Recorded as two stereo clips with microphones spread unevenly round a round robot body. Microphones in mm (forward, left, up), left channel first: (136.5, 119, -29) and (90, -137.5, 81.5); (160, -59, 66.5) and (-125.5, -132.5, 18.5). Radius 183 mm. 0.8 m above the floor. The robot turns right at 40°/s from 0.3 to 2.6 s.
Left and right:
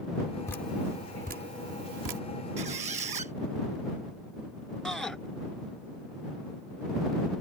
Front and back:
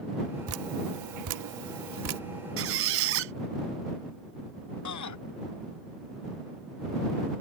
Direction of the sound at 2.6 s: 125° right.